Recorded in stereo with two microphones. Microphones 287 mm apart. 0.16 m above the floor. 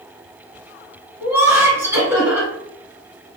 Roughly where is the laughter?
Centre.